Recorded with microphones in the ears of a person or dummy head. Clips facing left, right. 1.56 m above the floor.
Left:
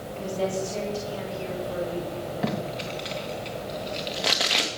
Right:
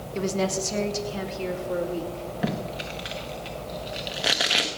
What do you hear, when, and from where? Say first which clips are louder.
0.1 s a woman speaking: right 2 dB; 70° right (ahead or behind), 1.7 m; by 2.2 s 45° right (ahead or behind), 3 m
2.4 s tape being pulled: right 1 dB; centre (ahead or behind), 1.4 m